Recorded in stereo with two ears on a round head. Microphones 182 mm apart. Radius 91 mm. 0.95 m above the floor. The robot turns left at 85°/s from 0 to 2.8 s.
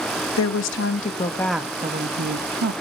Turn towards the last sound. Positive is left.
turn(degrees=-110)